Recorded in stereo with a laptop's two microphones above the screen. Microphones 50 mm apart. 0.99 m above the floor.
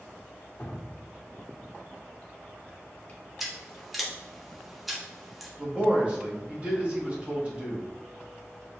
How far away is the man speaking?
About 1.1 m.